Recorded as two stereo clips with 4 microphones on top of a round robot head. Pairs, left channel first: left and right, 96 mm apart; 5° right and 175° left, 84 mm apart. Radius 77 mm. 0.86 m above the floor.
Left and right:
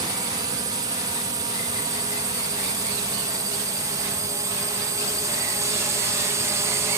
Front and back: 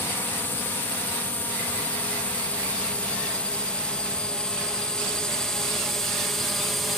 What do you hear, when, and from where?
0.0 s a drone: 60° right; by 7.0 s 95° right